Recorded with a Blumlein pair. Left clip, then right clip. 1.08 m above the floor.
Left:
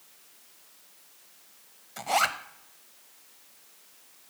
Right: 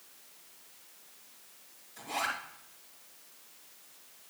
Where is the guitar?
No guitar in this recording.